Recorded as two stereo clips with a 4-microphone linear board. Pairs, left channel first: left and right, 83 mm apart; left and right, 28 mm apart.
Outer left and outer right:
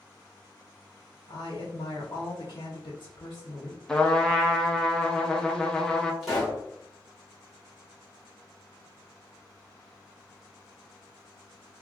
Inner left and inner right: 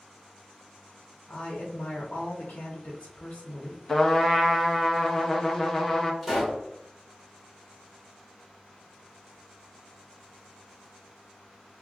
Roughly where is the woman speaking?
Left.